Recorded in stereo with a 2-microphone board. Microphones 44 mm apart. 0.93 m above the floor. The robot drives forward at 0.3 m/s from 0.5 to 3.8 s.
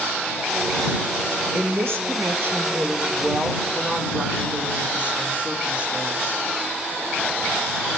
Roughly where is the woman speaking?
Right.